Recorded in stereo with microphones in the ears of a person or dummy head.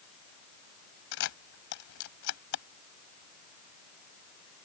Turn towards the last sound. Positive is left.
turn(degrees=65)  # may be behind; listen again after turning